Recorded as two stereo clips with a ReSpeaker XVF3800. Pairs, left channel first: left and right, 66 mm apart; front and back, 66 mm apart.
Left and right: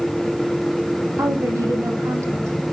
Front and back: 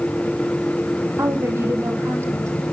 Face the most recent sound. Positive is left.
turn(degrees=-135)